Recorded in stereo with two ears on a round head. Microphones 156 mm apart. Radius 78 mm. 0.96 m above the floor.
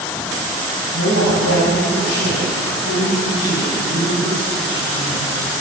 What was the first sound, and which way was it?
A woman speaking, 85° left.